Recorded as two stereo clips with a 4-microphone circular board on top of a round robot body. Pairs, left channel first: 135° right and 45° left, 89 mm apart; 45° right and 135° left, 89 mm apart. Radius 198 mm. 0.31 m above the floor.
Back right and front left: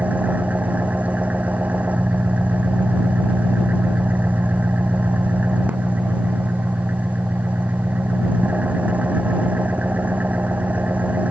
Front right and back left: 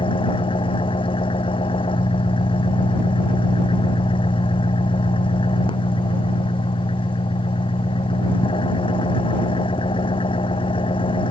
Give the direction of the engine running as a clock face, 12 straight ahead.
1 o'clock.